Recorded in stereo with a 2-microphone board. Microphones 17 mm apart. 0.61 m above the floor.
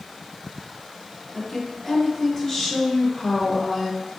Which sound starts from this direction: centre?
A woman speaking, at 1.3 s.